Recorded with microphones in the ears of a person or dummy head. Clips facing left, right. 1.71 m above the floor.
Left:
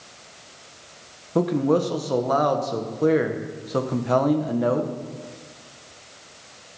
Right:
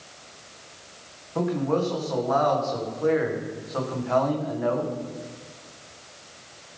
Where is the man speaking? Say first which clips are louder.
Left 4 dB; 50° left (ahead or behind), 1.6 m.